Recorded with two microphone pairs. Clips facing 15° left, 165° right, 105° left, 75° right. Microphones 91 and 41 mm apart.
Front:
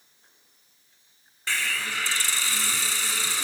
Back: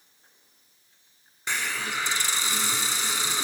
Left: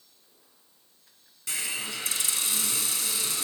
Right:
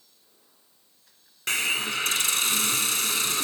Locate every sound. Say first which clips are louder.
1.5 s a hiss: even, right 8 dB; 95° right, 0.8 m